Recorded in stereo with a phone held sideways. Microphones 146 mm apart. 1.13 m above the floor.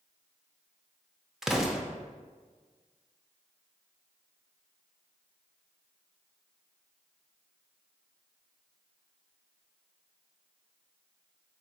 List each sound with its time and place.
1.4 s an explosion: centre (ahead or behind), 0.5 m